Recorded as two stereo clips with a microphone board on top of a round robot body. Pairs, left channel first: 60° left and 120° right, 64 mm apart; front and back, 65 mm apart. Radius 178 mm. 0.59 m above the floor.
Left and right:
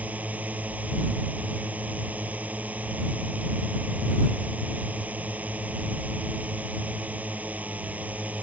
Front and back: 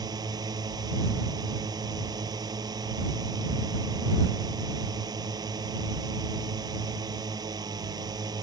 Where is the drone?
170° left.